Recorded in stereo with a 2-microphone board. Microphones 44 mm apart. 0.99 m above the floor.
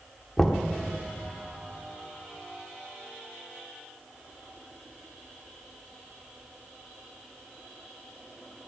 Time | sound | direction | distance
0.4 | knocking | 10° left (ahead or behind) | 1.3 m